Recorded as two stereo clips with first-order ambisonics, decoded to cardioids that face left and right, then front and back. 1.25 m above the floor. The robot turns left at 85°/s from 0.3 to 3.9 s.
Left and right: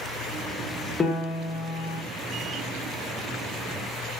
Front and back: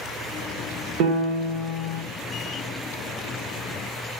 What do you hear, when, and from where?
1.0 s a piano: 165° left, 0.7 m; by 2.0 s 80° left, 0.7 m